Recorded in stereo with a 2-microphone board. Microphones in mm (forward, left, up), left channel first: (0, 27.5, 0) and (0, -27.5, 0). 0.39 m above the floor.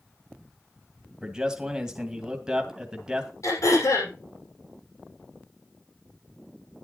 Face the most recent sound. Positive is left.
turn(degrees=75)  # may be behind; listen again after turning